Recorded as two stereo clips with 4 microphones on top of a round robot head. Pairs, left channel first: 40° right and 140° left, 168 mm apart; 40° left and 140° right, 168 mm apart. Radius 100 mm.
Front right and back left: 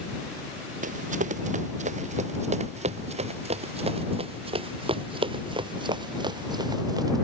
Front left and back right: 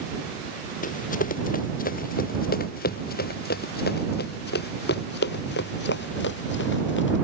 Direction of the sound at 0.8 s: 90° left.